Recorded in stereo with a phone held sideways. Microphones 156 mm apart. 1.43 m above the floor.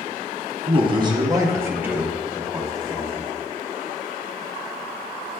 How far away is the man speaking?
About 1.2 m.